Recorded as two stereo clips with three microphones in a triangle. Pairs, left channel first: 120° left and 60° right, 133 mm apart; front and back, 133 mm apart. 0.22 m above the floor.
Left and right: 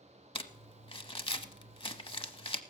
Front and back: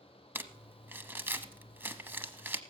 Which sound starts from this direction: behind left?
Crumpling, at 0.3 s.